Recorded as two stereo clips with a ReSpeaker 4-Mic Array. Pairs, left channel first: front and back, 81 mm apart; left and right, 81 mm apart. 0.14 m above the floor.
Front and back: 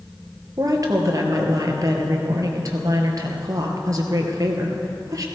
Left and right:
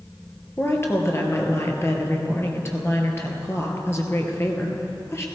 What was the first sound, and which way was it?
A woman speaking, 145° left.